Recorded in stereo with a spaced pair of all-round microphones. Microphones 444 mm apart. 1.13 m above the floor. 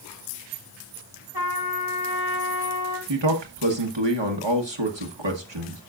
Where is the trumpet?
55° right (ahead or behind), 2 m.